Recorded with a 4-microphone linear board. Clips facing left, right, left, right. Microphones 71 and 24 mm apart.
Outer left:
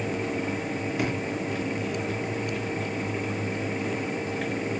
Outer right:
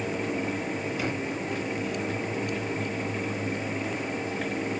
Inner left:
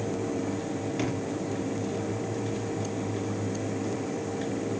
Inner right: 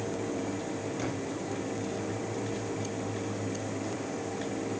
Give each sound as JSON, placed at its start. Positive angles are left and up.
{"t": 1.0, "sound": "a drawer", "side_deg": 55, "distance_m": 6.5}